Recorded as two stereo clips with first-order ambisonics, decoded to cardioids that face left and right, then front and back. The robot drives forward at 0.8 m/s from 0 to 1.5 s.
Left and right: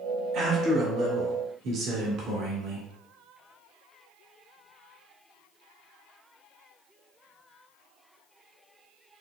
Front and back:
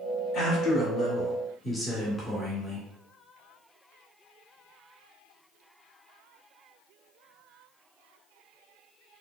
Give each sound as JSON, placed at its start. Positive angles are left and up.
{"t": 0.3, "sound": "a man speaking", "azimuth_deg": -45, "distance_m": 1.9}